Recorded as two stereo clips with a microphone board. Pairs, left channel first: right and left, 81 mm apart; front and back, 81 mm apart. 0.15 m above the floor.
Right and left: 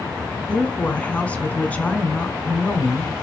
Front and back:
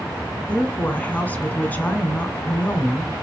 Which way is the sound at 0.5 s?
45° right.